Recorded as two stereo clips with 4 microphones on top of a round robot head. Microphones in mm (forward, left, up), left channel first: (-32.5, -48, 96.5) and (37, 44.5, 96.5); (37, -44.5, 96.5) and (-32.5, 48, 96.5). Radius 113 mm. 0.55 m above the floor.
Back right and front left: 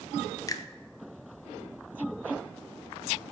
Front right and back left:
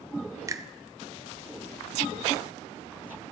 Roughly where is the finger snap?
Behind.